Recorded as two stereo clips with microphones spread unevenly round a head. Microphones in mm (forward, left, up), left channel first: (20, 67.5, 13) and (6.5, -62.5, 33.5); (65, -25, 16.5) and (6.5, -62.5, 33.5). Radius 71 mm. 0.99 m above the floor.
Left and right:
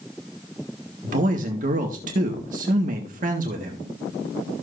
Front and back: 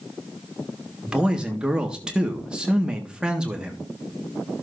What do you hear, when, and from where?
1.0 s a man speaking: 70° right, 1.5 m